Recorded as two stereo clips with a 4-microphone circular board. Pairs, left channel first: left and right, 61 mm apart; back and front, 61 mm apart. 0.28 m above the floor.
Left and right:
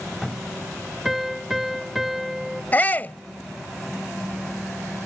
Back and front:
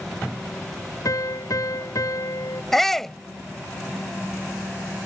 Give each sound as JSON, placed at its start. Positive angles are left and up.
{"t": 1.1, "sound": "a piano", "azimuth_deg": -175}
{"t": 2.7, "sound": "a shout", "azimuth_deg": 100}